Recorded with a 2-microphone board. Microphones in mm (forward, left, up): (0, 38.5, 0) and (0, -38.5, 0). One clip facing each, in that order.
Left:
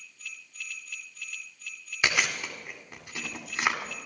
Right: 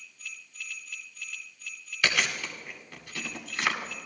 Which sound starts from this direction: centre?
Chewing, at 2.0 s.